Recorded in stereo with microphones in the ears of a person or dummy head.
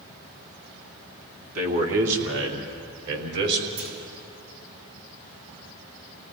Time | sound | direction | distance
1.6 | a man speaking | 80° right | 3 m
3.8 | a clunk | 80° right | 5 m